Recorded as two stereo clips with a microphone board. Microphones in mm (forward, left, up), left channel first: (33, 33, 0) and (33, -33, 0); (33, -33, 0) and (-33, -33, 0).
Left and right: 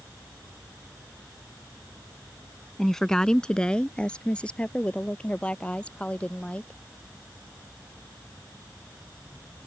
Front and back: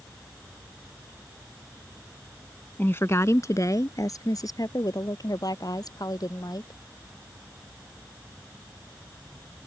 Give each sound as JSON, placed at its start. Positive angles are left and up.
{"t": 2.8, "sound": "a woman speaking", "azimuth_deg": 10}